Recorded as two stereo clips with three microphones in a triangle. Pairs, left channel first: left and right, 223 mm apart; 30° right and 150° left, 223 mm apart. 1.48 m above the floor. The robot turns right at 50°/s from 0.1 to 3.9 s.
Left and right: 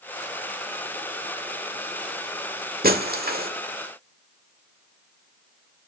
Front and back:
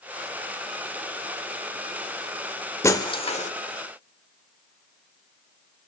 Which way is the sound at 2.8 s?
105° right.